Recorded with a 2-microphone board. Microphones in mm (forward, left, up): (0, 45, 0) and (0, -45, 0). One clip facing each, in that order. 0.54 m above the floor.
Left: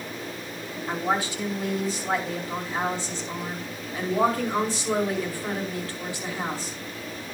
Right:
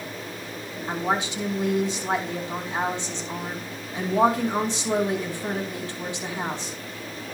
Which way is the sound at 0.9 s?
20° right (ahead or behind).